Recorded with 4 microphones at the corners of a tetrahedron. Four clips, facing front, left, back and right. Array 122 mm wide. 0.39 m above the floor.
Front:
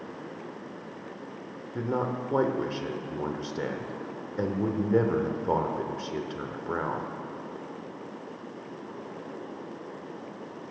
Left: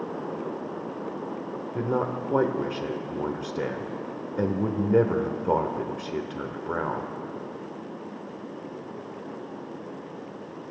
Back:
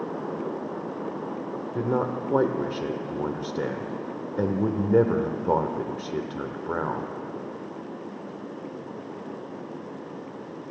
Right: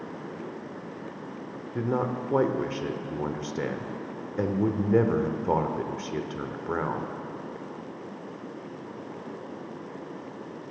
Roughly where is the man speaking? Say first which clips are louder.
Even, back 3 dB; behind left.